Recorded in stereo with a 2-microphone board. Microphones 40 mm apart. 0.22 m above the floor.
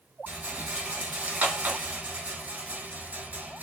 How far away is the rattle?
About 0.8 m.